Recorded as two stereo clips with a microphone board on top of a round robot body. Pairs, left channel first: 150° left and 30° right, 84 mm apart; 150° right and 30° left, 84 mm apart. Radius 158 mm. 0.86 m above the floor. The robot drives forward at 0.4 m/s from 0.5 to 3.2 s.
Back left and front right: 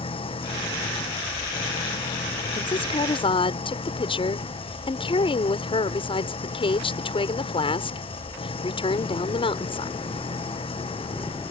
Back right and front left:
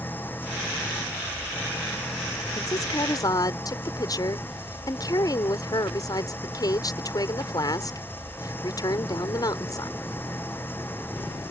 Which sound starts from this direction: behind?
A woman speaking, at 2.5 s.